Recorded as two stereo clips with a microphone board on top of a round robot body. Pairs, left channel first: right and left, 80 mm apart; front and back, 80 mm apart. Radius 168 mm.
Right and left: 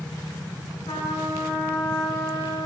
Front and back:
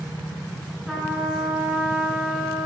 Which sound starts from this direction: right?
A trumpet, at 0.9 s.